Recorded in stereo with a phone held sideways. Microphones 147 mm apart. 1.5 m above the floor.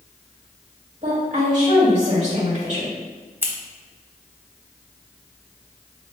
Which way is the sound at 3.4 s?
15° right (ahead or behind).